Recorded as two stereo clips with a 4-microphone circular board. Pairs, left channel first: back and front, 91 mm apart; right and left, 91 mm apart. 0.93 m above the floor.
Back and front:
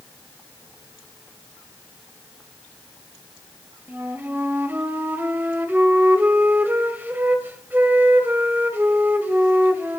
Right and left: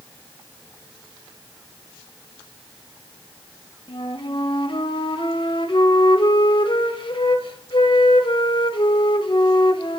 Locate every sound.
3.9 s a flute: 70° right, 1.4 m